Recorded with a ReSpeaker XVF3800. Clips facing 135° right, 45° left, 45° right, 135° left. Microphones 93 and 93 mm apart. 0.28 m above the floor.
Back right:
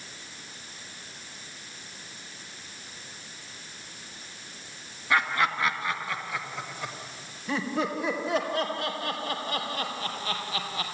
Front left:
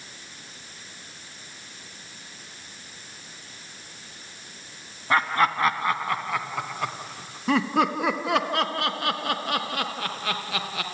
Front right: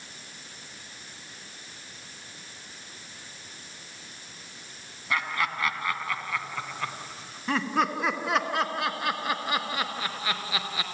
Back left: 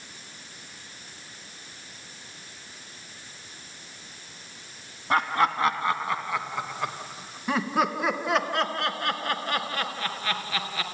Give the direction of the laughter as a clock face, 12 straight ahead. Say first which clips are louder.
Front left 4 dB, back left 6 dB; 9 o'clock.